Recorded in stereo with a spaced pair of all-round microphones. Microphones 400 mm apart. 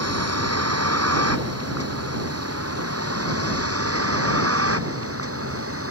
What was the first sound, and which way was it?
A vehicle, 40° right (ahead or behind).